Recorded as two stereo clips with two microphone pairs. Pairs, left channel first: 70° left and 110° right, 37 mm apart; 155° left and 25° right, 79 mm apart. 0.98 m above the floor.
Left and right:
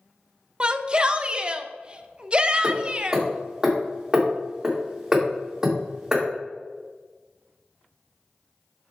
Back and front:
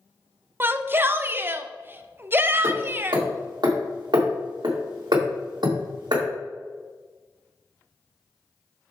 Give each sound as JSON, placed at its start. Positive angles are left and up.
{"t": 0.6, "sound": "a shout", "azimuth_deg": -65, "distance_m": 0.5}
{"t": 2.6, "sound": "hammering", "azimuth_deg": -40, "distance_m": 1.8}